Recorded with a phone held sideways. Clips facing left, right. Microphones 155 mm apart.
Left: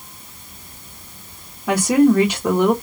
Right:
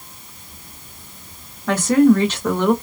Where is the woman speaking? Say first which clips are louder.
Right 1 dB; 10° left (ahead or behind), 0.9 m.